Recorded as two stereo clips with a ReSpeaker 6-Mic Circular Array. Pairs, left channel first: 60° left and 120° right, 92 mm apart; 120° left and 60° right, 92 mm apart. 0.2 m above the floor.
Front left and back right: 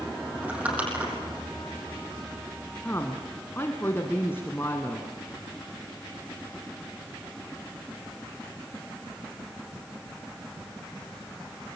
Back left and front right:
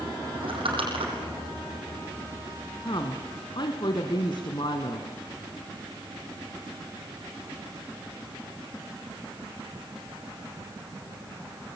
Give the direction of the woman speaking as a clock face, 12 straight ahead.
8 o'clock.